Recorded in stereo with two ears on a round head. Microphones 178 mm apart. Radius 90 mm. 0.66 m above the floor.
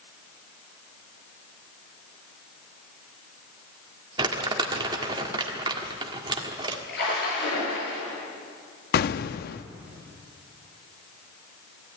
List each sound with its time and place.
4.2 s crumpling: 25° right (ahead or behind), 1.7 m
6.9 s a splash: 55° left (ahead or behind), 8.5 m
8.9 s an explosion: 50° left (ahead or behind), 0.5 m